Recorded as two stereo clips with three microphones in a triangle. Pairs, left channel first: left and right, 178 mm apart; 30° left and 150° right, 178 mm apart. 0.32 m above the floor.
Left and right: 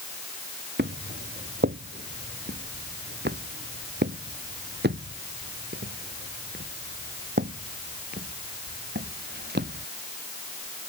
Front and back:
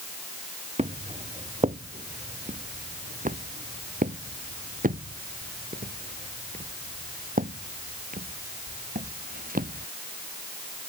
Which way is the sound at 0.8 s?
95° right.